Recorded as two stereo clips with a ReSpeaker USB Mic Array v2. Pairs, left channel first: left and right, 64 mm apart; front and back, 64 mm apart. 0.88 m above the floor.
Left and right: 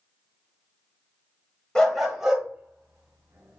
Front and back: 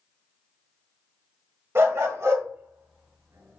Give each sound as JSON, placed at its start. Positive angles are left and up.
{"t": 1.8, "sound": "a dog barking", "azimuth_deg": 165, "distance_m": 0.8}